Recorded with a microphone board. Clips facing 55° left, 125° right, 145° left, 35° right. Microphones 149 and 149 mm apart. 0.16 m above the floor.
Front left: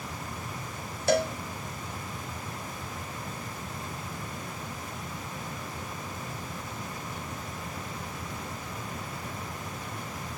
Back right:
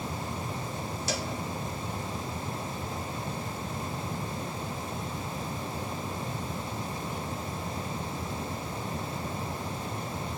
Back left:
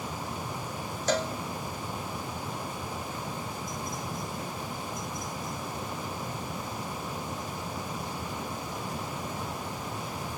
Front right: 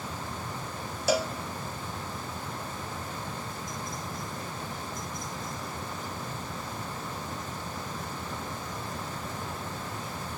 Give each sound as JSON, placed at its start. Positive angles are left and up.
{"t": 1.1, "sound": "a cowbell", "azimuth_deg": 45, "distance_m": 1.0}